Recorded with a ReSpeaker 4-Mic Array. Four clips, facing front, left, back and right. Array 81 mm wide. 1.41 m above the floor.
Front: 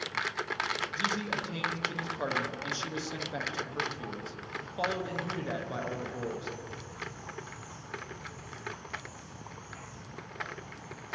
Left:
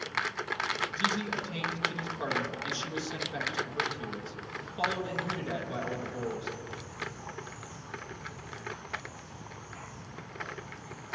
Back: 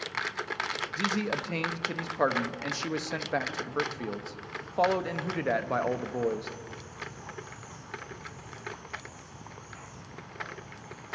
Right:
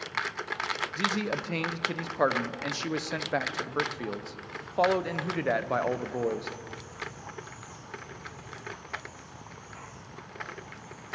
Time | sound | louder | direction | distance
1.0 | a man speaking | right 3 dB, back 5 dB | 135° right | 0.7 m